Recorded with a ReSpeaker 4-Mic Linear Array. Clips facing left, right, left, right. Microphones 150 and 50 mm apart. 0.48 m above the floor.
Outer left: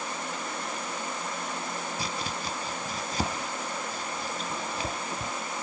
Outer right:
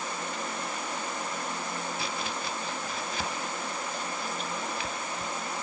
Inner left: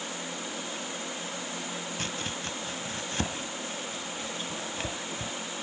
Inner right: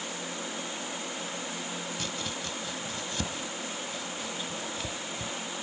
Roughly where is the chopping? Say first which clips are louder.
Even, inner left 1 dB; left.